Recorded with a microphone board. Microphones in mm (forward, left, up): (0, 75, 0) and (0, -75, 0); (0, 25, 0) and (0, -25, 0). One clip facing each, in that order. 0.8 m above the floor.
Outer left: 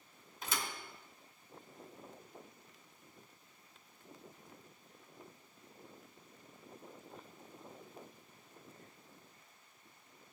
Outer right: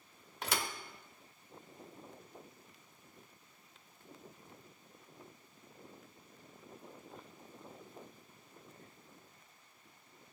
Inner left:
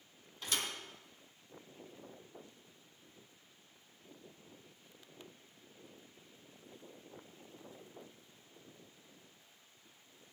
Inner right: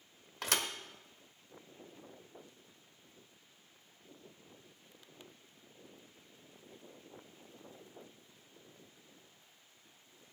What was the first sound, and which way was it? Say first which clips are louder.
A thud: outer right 3 dB, inner right 4 dB; 75° right (ahead or behind).